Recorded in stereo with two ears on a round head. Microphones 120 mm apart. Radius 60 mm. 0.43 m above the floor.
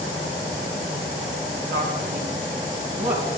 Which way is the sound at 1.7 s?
50° right (ahead or behind).